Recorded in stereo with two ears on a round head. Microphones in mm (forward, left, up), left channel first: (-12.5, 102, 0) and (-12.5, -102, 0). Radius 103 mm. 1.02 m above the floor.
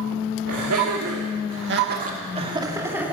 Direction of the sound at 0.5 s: 70° right (ahead or behind).